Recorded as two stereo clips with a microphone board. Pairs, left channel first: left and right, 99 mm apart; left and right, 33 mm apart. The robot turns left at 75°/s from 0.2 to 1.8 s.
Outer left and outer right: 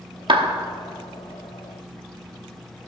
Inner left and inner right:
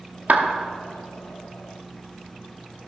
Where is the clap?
55° right (ahead or behind), 0.9 m; by 0.5 s 70° right (ahead or behind), 0.9 m.